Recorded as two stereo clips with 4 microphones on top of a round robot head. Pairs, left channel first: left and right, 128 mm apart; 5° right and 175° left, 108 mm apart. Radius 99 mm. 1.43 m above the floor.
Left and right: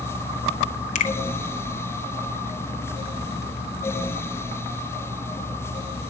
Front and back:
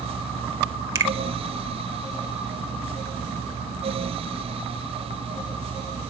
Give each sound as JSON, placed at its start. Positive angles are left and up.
{"t": 0.9, "sound": "a finger snap", "azimuth_deg": 110, "distance_m": 2.0}